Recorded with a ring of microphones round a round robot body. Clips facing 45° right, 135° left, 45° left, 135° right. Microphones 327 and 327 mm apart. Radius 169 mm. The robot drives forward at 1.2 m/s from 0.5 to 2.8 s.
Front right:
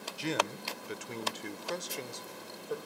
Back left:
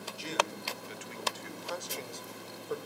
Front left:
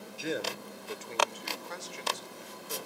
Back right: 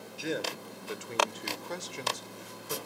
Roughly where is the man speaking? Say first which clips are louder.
Front right 2 dB, even; ahead right.